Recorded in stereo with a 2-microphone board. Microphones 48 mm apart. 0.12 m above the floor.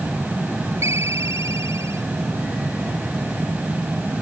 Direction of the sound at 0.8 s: 80° right.